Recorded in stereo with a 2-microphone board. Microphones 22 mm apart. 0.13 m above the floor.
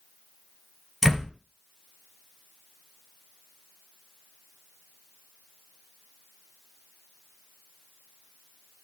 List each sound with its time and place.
1.0 s a door slam: 5° right (ahead or behind), 1.3 m